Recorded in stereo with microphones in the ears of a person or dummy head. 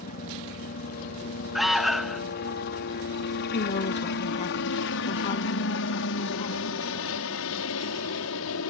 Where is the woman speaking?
35° left (ahead or behind).